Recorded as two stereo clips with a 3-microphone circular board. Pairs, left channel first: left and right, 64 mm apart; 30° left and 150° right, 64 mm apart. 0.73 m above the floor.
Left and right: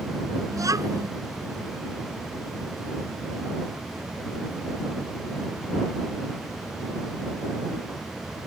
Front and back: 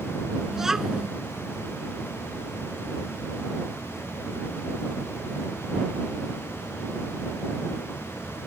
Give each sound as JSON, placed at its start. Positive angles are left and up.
{"t": 0.5, "sound": "a child speaking", "azimuth_deg": -70}